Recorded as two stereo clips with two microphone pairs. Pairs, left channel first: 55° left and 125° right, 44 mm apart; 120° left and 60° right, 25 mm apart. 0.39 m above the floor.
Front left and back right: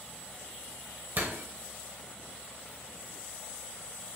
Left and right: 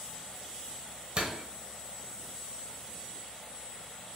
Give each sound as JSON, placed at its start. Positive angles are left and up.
{"t": 1.2, "sound": "a door slam", "azimuth_deg": -95, "distance_m": 1.0}